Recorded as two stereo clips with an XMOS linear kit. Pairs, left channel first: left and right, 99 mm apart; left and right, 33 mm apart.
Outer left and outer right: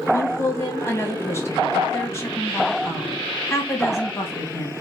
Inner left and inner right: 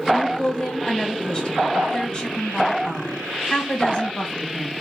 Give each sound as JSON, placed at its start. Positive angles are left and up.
{"t": 0.1, "sound": "a woman speaking", "side_deg": 30, "distance_m": 1.4}